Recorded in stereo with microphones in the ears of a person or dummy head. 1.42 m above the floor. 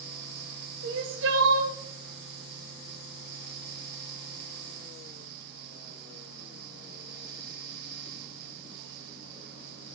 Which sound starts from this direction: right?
Crying, at 0.8 s.